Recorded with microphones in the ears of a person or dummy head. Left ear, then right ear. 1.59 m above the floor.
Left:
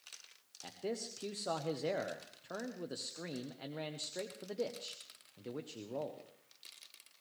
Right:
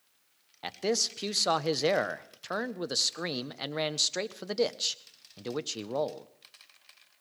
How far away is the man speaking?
About 0.7 m.